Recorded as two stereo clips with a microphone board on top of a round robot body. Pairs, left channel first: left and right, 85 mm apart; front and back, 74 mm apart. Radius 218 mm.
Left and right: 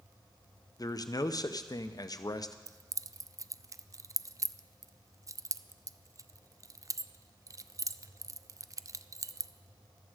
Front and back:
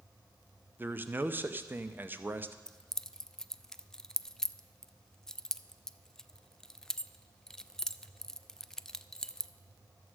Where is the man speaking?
120° left, 0.7 m.